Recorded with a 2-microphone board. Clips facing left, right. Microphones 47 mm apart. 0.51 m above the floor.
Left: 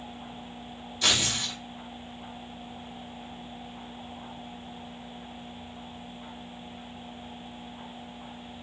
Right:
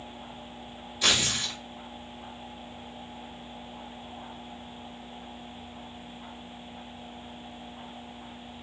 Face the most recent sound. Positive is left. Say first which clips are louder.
# right 1 dB
turn(degrees=-5)  # may be behind; listen again after turning